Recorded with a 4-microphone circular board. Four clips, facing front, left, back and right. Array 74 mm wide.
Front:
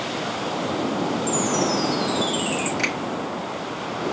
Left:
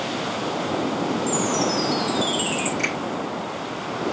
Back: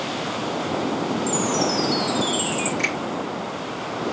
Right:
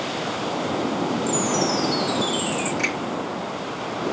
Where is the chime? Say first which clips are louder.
Even, even; 55° left, 1.7 m.